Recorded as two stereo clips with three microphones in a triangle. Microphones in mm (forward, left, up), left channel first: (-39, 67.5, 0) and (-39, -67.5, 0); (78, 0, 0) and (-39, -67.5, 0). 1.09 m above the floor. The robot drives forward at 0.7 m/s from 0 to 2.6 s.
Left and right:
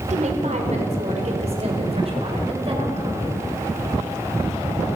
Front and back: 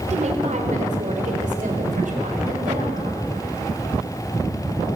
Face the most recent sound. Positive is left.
turn(degrees=-135)